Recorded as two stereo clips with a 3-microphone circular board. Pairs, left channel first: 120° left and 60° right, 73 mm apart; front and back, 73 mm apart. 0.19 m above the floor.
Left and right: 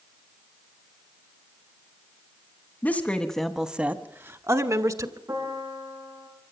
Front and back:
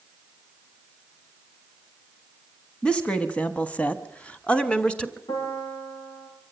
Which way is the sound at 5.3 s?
15° right.